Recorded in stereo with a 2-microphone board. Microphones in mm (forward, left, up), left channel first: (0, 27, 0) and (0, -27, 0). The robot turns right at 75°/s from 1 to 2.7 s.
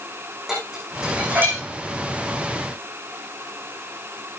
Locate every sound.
0.5 s dishes clattering: 10° right (ahead or behind), 7 m; by 1.6 s 55° right (ahead or behind), 7 m